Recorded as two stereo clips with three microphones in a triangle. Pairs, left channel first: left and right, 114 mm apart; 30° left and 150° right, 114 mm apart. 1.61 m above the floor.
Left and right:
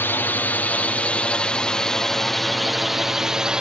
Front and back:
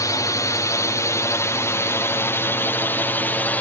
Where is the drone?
35° left; by 3.6 s 20° right.